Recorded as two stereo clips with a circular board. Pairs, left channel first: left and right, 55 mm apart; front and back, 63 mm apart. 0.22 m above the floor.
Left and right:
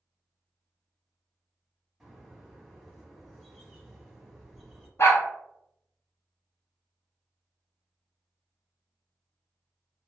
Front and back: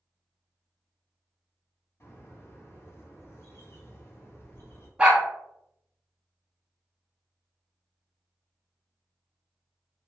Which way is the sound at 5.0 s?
110° left.